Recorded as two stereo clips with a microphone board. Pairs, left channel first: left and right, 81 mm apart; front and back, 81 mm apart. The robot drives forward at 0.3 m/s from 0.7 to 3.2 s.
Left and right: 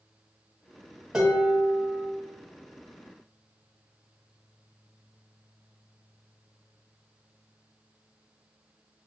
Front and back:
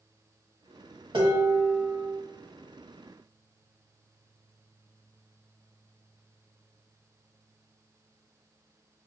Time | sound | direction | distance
1.1 | dishes clattering | 170° right | 1.3 m